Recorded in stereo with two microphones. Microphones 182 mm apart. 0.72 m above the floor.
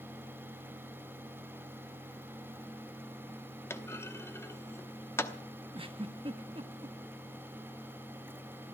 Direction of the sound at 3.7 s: 15° left (ahead or behind).